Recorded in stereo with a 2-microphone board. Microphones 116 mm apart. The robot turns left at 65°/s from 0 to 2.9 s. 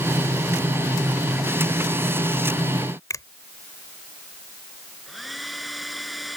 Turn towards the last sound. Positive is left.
turn(degrees=0)  # may be behind; listen again after turning